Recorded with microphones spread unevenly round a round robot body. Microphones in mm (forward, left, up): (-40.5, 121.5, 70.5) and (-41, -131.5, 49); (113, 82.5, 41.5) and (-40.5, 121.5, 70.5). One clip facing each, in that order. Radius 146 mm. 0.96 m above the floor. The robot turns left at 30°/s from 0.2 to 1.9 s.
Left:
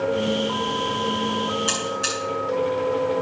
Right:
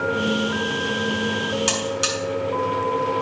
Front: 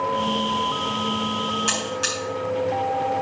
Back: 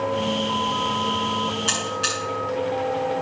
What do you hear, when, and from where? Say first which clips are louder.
1.7 s a buzzer: right 3 dB, front 1 dB; 65° right, 6 m; by 2.2 s 70° right, 6 m